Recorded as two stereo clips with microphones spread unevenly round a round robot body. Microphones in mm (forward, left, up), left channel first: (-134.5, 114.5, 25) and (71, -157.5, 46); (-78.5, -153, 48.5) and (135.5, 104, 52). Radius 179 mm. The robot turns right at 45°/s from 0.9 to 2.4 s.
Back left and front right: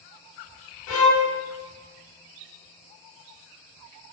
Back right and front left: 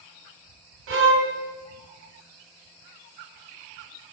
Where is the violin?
90° left, 0.7 m; by 1.3 s 110° left, 0.7 m.